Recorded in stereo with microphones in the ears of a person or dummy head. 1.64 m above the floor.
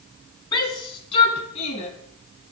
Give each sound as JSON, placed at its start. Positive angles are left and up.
{"t": 0.5, "sound": "a shout", "side_deg": 20, "distance_m": 2.5}